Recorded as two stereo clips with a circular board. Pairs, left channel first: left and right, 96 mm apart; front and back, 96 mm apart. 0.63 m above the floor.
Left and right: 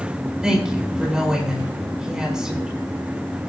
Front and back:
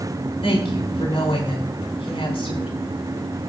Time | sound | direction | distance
0.4 | a woman speaking | 10° right | 6.5 m